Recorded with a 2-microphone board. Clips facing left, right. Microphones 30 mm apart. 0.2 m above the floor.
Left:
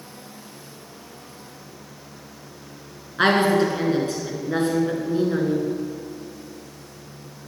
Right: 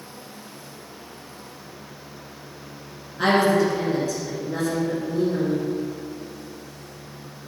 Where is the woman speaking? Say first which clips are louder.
Left 1 dB; 50° left (ahead or behind), 2.5 m.